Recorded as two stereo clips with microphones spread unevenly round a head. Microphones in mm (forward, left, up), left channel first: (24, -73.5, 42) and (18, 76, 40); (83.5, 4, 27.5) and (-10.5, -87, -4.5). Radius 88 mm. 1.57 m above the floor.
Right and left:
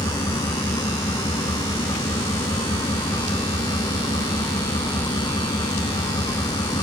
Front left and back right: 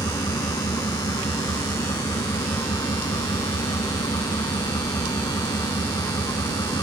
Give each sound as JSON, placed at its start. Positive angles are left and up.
{"t": 0.0, "sound": "an engine running", "azimuth_deg": -20}